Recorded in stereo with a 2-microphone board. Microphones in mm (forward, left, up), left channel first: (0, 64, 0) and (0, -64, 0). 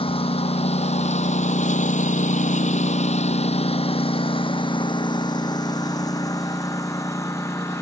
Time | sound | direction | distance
0.0 | a lawn mower | 50° left (ahead or behind) | ?